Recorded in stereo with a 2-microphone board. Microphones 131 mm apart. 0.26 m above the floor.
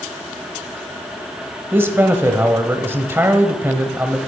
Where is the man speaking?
20° right (ahead or behind), 1.0 m.